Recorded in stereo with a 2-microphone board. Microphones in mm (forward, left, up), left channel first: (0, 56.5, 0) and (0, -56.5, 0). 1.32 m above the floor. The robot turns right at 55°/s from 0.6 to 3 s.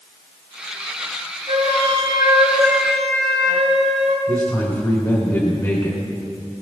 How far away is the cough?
No cough in this recording.